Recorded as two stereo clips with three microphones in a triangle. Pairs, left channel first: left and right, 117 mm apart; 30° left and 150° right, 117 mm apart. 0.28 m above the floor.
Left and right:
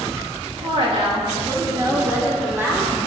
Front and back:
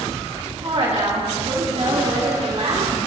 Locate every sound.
0.6 s a woman speaking: 120° right, 3.5 m; by 2.9 s 165° right, 4.5 m